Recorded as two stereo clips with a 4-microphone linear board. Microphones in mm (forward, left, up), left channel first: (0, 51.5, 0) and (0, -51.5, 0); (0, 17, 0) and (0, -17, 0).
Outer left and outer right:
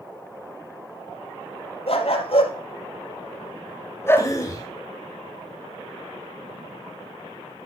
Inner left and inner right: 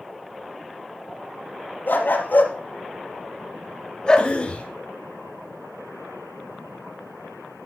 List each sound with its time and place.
1.9 s a dog barking: 80° left, 3 m; by 4.3 s 15° left (ahead or behind), 1.8 m
4.2 s a cough: 35° left (ahead or behind), 2.5 m